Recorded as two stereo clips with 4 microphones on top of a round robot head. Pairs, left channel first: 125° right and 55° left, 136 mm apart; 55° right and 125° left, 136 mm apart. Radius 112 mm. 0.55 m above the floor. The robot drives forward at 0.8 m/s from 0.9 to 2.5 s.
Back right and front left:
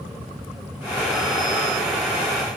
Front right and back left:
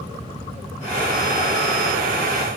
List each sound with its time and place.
Only background noise.